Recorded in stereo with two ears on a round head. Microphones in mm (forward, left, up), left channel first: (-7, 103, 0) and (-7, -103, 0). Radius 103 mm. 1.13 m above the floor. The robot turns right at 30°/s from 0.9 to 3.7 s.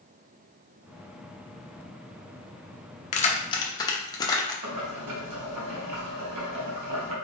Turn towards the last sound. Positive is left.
turn(degrees=-90)